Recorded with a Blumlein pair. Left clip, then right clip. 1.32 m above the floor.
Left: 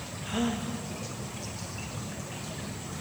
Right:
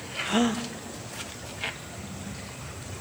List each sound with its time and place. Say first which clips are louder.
0.2 s a gasp: right 5 dB; 25° right, 0.7 m